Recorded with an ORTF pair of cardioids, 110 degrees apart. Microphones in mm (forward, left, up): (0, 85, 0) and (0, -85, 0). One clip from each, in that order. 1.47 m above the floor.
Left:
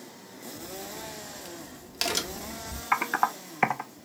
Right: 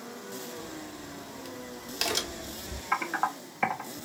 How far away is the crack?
About 0.7 m.